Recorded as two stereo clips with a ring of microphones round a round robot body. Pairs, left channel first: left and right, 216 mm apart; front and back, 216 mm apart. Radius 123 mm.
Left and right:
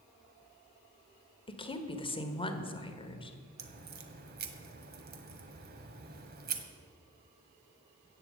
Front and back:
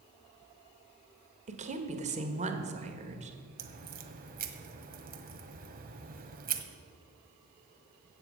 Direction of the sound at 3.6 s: 135° right.